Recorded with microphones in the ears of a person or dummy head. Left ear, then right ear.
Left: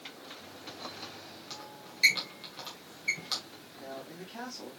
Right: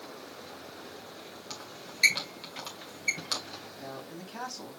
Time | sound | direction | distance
1.5 | a squeak | 20° right (ahead or behind) | 1.7 m
3.8 | a man speaking | 25° right (ahead or behind) | 2.5 m